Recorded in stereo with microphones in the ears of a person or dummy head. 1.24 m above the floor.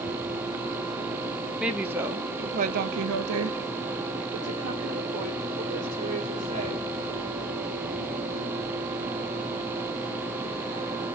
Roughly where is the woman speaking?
Centre.